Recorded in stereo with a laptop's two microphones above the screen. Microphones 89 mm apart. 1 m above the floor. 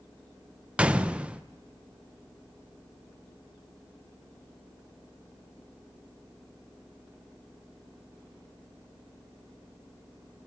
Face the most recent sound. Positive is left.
turn(degrees=-15)  # may be behind; listen again after turning